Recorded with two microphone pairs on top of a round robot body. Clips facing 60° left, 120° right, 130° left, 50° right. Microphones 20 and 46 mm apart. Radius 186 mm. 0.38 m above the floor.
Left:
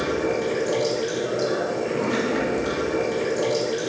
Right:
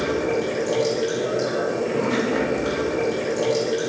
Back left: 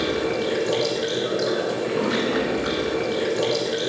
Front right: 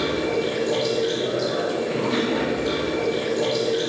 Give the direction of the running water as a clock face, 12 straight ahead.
7 o'clock.